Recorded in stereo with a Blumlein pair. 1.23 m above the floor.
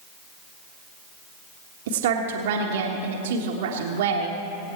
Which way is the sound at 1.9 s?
55° right.